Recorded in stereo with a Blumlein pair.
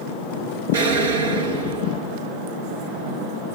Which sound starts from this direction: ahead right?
An explosion, at 0.7 s.